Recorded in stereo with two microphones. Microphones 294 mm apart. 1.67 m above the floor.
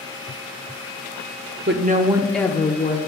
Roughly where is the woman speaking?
Right.